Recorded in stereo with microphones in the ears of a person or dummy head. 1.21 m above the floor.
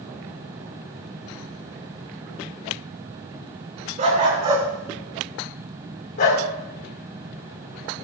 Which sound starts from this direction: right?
A dog barking, at 4.0 s.